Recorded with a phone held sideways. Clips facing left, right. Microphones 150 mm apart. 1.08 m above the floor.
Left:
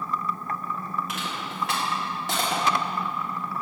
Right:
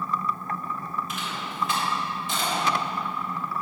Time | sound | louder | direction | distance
1.1 | crushing | left 1 dB | 75° left (ahead or behind) | 2.0 m